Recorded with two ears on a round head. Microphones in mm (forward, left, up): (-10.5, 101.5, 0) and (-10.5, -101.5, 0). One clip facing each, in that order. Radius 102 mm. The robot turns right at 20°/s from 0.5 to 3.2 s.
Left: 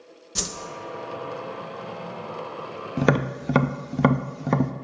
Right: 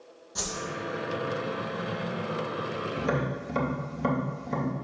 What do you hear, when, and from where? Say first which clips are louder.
0.3 s a whoosh: left 2 dB; 35° left (ahead or behind), 0.6 m
3.0 s tapping: left 9 dB; 70° left (ahead or behind), 0.6 m